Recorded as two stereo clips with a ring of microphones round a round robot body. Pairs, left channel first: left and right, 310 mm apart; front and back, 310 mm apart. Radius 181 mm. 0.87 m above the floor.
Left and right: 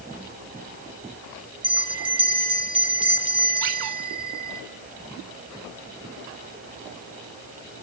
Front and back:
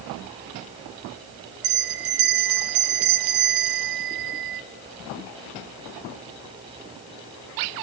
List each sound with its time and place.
1.6 s a bell: 165° right, 1.3 m